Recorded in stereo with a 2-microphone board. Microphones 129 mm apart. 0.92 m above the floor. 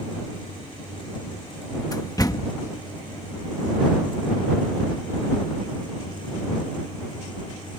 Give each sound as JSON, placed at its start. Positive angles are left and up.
{"t": 1.9, "sound": "a door slam", "side_deg": 30}